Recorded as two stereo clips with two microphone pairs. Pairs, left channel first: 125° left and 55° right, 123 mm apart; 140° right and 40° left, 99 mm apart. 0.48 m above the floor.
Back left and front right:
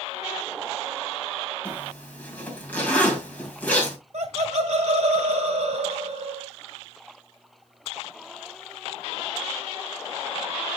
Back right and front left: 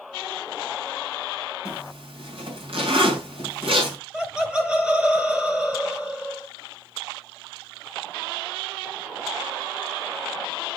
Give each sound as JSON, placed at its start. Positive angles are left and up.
{"t": 1.6, "sound": "a zipper", "azimuth_deg": 45, "distance_m": 2.5}
{"t": 4.1, "sound": "laughter", "azimuth_deg": -40, "distance_m": 2.5}